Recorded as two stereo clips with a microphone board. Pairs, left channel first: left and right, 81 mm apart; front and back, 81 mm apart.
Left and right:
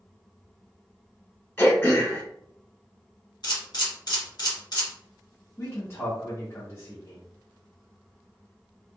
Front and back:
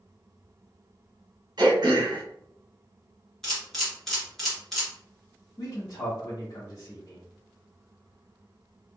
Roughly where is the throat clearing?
Behind left.